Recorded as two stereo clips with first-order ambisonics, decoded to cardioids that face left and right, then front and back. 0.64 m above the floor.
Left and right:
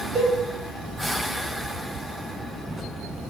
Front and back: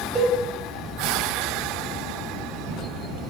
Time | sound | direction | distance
0.1 | a cowbell | 135° right | 1.0 m